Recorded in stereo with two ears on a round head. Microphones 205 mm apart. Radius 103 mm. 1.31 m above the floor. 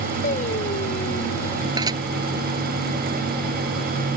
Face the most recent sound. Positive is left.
turn(degrees=-15)  # may be behind; listen again after turning